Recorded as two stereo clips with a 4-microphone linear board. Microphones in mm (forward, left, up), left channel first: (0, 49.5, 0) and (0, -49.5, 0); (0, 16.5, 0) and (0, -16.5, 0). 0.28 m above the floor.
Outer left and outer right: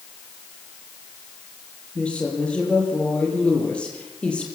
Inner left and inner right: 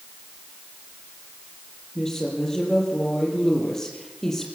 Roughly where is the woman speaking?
Centre.